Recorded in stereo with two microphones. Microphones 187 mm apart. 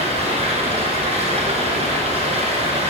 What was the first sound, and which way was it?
Running water, 35° right (ahead or behind).